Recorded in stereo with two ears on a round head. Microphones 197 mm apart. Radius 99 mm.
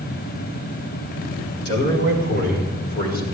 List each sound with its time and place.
1.6 s a man speaking: 50° left (ahead or behind), 4.5 m; by 3.2 s 45° left (ahead or behind), 6 m